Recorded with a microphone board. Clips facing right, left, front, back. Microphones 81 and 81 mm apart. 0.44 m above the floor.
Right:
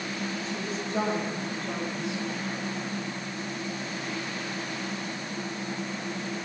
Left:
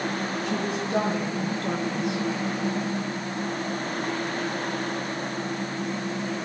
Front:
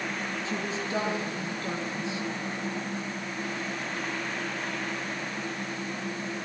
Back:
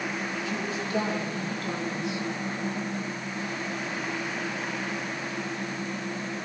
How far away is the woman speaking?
About 7 m.